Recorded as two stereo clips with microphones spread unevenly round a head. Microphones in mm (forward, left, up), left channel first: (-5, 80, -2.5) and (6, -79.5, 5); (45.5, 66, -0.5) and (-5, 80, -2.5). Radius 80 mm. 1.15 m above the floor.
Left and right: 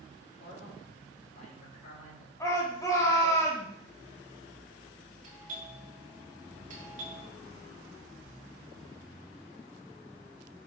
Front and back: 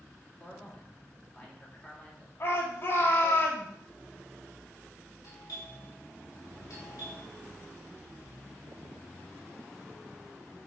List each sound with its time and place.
0.4 s a man speaking: 50° left, 2.5 m
2.4 s a shout: 20° left, 3 m
5.2 s a doorbell: 45° right, 2.5 m